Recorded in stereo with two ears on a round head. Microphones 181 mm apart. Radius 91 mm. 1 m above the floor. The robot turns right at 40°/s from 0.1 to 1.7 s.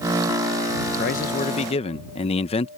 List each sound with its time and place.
1.0 s a man speaking: 45° left (ahead or behind); by 2.7 s 30° left (ahead or behind)